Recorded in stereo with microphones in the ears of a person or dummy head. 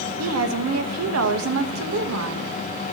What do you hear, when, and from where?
0.2 s a woman speaking: 85° right, 1.0 m